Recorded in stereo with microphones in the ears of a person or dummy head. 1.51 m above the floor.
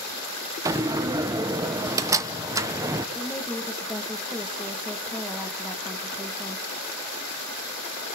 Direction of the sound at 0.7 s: 20° right (ahead or behind).